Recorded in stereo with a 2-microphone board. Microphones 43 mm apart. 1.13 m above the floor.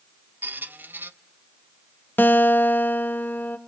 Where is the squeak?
45° right (ahead or behind), 0.6 m.